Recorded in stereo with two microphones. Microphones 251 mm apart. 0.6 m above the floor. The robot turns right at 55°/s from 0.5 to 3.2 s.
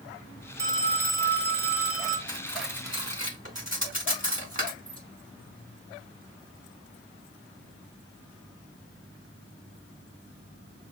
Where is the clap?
I don't hear a clap.